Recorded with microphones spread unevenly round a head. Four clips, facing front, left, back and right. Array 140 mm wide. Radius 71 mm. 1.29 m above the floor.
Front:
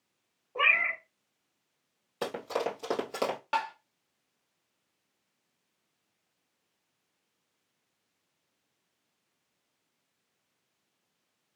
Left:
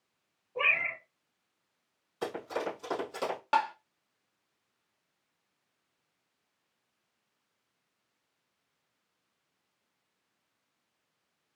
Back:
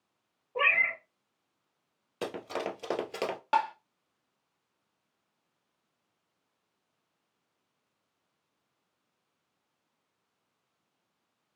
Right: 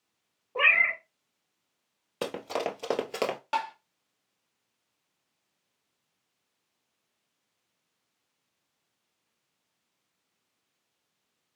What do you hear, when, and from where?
0.6 s a cat meowing: 95° right, 1.2 m
2.2 s running footsteps: 100° right, 2 m; by 3.4 s 95° right, 1.6 m
3.5 s tapping: 140° left, 0.8 m